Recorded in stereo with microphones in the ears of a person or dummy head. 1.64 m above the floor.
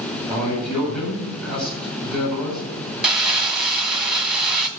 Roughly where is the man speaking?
Centre.